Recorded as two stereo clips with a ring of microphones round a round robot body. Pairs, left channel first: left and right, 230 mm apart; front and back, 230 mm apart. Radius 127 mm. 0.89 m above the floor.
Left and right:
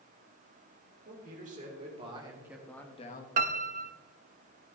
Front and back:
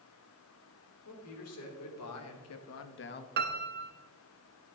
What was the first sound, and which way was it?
A man speaking, 30° right.